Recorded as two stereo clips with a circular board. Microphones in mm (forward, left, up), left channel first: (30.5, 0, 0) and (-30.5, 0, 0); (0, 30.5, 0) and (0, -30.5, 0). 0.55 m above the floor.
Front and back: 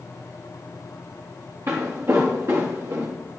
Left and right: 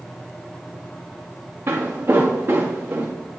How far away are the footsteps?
About 2.0 m.